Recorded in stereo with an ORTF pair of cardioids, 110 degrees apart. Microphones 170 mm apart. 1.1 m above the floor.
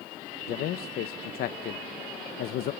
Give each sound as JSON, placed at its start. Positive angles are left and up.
{"t": 0.5, "sound": "a man speaking", "azimuth_deg": 65, "distance_m": 0.7}